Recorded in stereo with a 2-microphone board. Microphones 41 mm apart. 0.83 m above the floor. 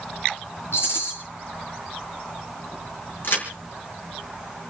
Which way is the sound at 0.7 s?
85° left.